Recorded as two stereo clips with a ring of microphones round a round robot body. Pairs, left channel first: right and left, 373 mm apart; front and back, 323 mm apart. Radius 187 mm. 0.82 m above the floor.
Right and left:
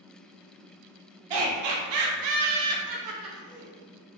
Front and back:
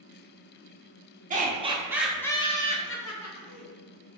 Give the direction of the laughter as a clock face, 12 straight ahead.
8 o'clock.